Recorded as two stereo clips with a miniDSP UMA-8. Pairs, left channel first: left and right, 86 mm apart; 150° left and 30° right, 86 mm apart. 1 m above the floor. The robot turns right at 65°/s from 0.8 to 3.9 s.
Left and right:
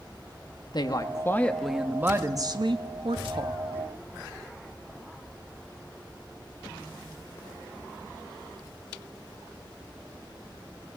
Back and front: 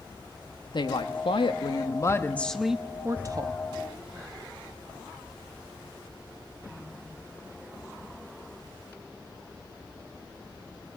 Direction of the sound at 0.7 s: 125° left.